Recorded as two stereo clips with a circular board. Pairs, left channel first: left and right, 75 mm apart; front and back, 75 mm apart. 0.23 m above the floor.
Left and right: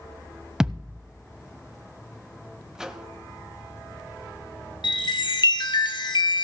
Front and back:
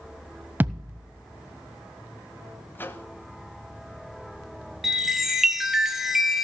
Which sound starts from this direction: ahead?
A microwave, at 2.8 s.